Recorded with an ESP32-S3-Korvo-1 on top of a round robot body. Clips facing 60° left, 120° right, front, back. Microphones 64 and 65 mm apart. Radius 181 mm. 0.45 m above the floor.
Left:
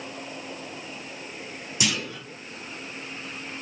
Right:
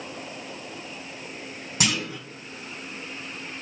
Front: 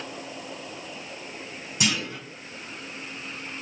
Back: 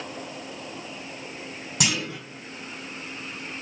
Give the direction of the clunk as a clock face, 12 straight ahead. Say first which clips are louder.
Right 2 dB, even; 5 o'clock.